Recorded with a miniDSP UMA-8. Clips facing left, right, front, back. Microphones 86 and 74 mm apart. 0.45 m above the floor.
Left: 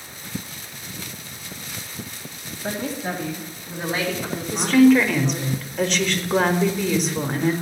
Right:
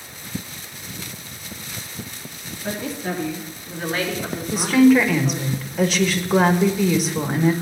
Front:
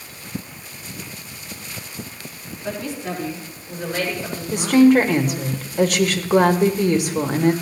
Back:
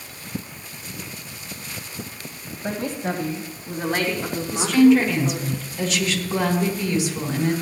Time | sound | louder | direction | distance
2.6 | a woman speaking | even, back 1 dB | 135° left | 2.5 m
4.5 | a woman speaking | even, front 2 dB | 5° right | 1.3 m